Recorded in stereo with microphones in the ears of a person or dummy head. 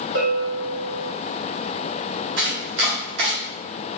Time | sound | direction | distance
0.1 | a bell | 65° right (ahead or behind) | 2.0 m
2.4 | chopping | 60° right (ahead or behind) | 1.3 m